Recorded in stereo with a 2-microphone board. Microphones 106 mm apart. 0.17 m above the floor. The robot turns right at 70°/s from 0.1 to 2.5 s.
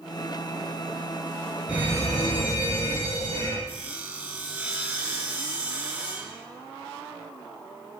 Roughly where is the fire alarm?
Behind.